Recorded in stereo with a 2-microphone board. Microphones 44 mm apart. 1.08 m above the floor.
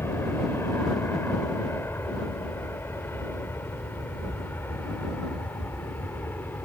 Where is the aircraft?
75° left (ahead or behind); by 6.7 s 60° left (ahead or behind).